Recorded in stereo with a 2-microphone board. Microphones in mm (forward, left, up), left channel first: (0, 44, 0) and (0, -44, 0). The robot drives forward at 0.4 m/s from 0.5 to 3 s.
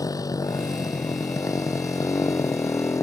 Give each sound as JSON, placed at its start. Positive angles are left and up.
{"t": 0.0, "sound": "a motorcycle", "side_deg": 45}